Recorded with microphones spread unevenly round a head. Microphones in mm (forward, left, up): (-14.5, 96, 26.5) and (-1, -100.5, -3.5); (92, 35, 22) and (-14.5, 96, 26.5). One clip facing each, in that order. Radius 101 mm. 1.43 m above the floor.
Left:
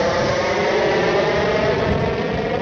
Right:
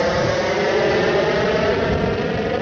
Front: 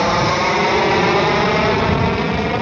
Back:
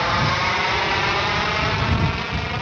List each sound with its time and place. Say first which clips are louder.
0.0 s an aircraft: even, front 6 dB; straight ahead